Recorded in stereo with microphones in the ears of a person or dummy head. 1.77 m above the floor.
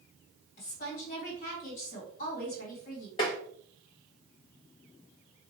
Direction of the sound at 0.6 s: 50° left (ahead or behind).